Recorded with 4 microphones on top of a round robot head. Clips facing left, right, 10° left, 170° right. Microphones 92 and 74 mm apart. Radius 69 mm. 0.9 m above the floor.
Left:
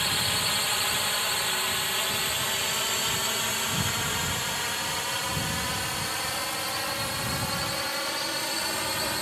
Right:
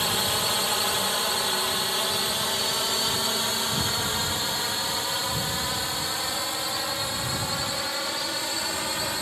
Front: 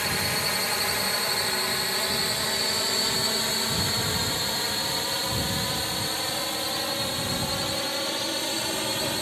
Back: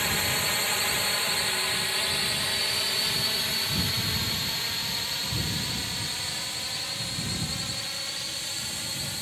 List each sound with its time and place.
0.0 s a drone: 70° right; by 9.2 s 5° right